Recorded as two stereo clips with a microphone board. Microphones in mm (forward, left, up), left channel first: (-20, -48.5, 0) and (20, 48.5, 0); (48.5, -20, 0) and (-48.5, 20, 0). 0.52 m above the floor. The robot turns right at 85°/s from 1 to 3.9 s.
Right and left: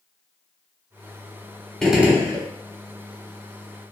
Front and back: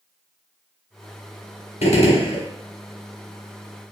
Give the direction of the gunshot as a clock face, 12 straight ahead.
1 o'clock.